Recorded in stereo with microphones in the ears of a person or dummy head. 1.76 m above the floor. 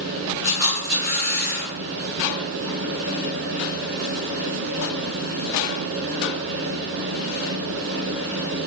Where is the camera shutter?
40° right (ahead or behind), 1.0 m.